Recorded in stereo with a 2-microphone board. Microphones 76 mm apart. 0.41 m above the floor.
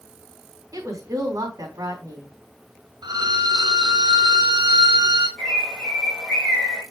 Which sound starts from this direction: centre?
A bird, at 5.4 s.